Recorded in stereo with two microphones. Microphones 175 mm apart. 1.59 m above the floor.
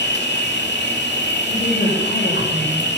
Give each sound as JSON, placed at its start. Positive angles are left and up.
{"t": 0.0, "sound": "an insect", "side_deg": 75, "distance_m": 2.0}
{"t": 1.4, "sound": "a woman speaking", "side_deg": 60, "distance_m": 5.0}